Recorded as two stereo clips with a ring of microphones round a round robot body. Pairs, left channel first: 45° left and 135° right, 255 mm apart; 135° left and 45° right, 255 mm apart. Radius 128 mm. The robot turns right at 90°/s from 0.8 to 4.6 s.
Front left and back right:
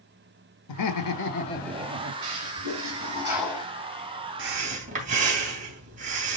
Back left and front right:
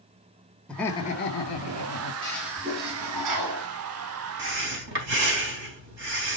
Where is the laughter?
50° left, 1.7 m; by 2.1 s 170° left, 1.7 m.